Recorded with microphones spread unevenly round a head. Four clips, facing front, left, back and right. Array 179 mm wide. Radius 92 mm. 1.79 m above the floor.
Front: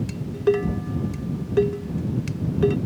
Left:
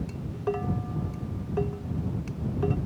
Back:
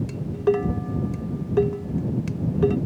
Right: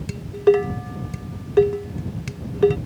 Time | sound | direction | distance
0.1 | dishes clattering | 80° right | ?